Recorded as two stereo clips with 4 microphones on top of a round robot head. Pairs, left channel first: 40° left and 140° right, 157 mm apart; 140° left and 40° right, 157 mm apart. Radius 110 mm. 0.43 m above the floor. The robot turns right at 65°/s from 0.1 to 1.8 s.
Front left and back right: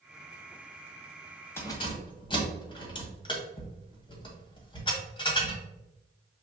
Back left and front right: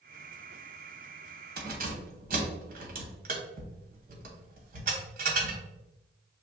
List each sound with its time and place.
1.6 s keys jangling: 35° right, 1.2 m; by 5.6 s 20° right, 1.2 m